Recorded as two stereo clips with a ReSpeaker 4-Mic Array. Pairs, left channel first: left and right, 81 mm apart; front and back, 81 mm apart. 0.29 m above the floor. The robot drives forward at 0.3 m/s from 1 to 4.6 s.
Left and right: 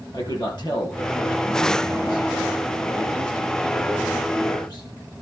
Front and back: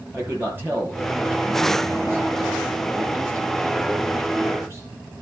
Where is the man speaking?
115° left, 8 m; by 4.9 s 120° left, 8.5 m.